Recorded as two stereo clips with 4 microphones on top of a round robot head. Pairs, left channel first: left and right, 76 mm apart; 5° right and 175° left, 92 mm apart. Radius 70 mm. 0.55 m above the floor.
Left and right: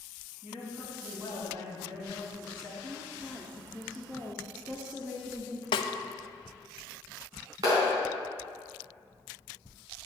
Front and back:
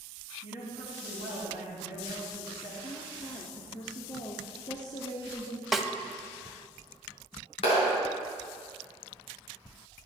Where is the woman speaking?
20° right, 1.2 m.